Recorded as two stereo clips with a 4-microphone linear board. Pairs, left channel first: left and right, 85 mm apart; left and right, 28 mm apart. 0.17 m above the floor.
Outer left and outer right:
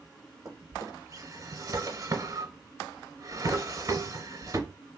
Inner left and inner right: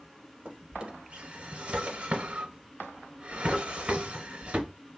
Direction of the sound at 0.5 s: 40° right (ahead or behind).